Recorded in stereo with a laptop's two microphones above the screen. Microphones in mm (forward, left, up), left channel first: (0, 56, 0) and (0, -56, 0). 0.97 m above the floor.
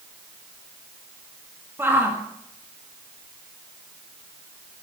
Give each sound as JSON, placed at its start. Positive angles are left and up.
{"t": 1.8, "sound": "a shout", "side_deg": -20, "distance_m": 1.6}